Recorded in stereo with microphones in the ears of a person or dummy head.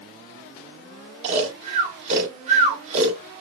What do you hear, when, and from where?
1.2 s snoring: 40° right (ahead or behind), 1.5 m